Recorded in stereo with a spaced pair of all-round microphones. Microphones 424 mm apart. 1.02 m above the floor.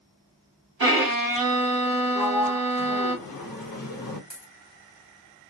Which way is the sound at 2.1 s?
50° left (ahead or behind).